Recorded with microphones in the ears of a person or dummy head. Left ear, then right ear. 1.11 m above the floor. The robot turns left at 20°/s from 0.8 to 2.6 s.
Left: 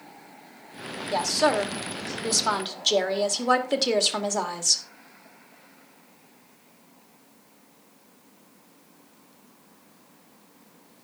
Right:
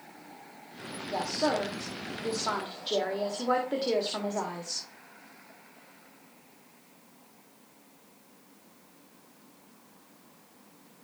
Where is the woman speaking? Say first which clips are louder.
Left 6 dB; 70° left (ahead or behind), 2 m; by 4.8 s 80° left, 2 m.